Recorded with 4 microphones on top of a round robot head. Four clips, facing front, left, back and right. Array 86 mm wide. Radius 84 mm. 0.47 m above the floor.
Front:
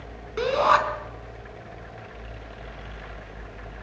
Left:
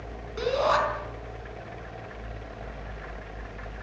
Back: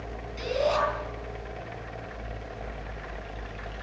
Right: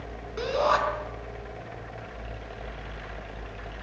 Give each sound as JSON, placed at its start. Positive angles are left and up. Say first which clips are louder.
{"t": 0.4, "sound": "a shout", "louder": "even, front 7 dB", "azimuth_deg": -10, "distance_m": 4.5}